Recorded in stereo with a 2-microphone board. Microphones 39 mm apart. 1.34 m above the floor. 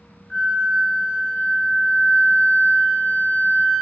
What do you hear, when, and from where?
0.3 s a flute: 30° left (ahead or behind), 0.9 m